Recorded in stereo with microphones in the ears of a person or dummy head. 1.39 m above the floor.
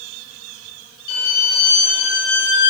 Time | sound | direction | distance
1.1 | a violin | 55° left (ahead or behind) | 0.6 m